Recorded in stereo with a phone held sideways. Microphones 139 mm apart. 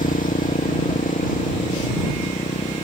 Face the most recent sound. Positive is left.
turn(degrees=80)